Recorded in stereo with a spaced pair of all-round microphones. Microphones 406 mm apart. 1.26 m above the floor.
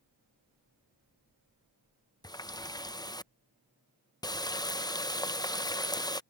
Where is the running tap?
10° left (ahead or behind).